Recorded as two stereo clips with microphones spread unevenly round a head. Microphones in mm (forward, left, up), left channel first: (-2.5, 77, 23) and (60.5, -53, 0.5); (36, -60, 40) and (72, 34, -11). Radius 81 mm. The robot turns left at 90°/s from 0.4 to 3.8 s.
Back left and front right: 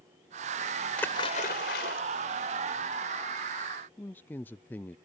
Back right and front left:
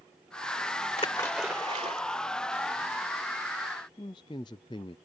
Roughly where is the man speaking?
Behind.